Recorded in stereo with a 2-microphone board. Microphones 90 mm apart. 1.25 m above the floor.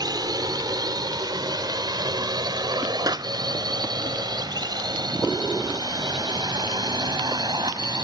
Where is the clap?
40° right (ahead or behind).